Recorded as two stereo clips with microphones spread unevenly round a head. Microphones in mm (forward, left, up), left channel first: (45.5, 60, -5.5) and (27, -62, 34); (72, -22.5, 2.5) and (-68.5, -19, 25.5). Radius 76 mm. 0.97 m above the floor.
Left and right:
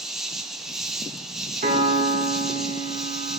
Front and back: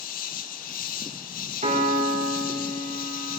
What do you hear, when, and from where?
0.0 s an insect: 5° right, 1.2 m
1.6 s a piano: 145° right, 3.5 m